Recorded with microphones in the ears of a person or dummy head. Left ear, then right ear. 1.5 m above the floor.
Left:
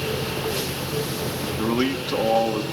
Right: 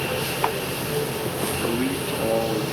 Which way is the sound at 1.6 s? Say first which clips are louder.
Left 1 dB; 55° left (ahead or behind).